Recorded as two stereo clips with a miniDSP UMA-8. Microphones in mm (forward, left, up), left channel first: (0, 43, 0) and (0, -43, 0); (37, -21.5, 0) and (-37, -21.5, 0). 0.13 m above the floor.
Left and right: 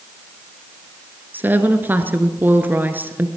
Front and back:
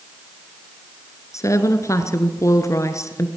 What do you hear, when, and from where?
1.3 s a woman speaking: 30° right, 1.8 m